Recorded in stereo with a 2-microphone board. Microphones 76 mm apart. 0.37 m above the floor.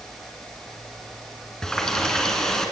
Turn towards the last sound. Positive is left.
turn(degrees=10)  # may be behind; listen again after turning